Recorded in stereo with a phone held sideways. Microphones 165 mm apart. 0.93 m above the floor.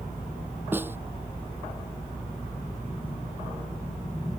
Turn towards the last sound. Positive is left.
turn(degrees=-15)  # may be behind; listen again after turning